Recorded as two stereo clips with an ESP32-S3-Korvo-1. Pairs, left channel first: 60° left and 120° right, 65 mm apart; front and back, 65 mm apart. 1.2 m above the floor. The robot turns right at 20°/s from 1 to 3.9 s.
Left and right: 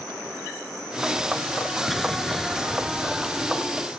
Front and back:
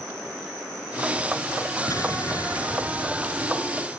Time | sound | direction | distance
1.9 | an explosion | 30° right | ?